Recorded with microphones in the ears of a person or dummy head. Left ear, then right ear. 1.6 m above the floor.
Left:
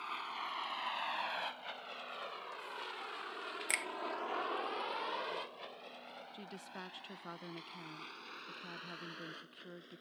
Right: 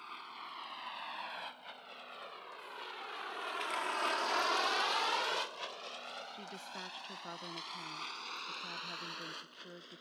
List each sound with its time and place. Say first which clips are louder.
0.0 s a vehicle: left 5 dB; 20° left (ahead or behind); by 10.0 s 40° right (ahead or behind)
3.7 s a finger snap: left 3 dB; 30° left (ahead or behind)
6.3 s a woman speaking: right 3 dB; 5° right (ahead or behind)